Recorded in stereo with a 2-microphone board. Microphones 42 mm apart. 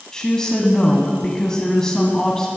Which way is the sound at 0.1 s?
15° left (ahead or behind).